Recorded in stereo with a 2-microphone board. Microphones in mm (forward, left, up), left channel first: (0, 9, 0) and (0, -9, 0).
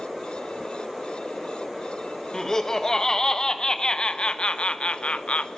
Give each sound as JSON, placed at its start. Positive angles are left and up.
{"t": 2.3, "sound": "laughter", "side_deg": 30, "distance_m": 1.8}